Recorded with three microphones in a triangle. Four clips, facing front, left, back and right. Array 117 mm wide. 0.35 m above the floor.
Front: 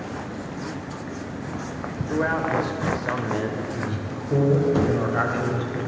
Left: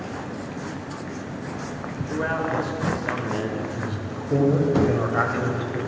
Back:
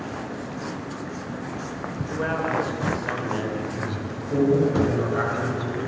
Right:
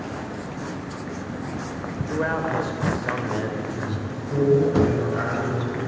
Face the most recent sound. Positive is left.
turn(degrees=65)